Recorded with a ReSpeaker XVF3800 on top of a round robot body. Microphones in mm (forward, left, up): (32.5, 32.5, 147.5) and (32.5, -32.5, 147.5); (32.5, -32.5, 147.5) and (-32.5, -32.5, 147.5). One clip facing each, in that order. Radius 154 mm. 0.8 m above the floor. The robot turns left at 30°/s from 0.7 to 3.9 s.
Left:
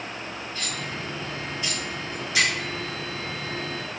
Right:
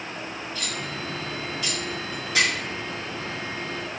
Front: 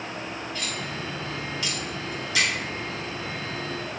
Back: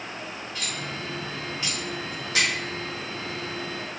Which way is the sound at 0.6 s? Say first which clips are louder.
Even, front 1 dB; 90° right.